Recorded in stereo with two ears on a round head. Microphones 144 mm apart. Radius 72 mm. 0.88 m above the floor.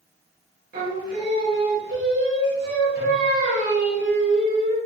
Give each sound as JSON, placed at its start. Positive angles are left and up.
{"t": 0.7, "sound": "singing", "side_deg": -60, "distance_m": 1.0}